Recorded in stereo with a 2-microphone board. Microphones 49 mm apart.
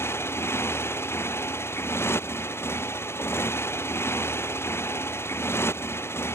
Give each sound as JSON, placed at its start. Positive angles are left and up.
{"t": 0.0, "sound": "a motorcycle", "side_deg": 55}